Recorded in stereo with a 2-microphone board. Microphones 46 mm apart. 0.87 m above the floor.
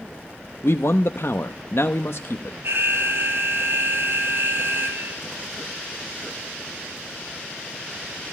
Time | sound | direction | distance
0.6 | a man speaking | 60° left (ahead or behind) | 0.8 m
2.6 | an alarm | 60° right (ahead or behind) | 2 m